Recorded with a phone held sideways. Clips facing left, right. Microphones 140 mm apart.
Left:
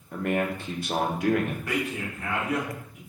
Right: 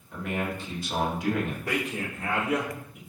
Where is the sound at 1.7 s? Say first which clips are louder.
Left 1 dB; 30° right (ahead or behind), 1.7 m.